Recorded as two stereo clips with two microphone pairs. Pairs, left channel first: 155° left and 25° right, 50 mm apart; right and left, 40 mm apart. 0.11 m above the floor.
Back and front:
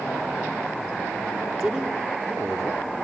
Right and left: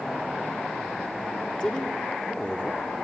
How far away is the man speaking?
About 1.6 m.